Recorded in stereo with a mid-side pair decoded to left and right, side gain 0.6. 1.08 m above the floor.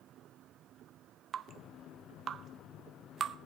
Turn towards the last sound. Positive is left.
turn(degrees=-40)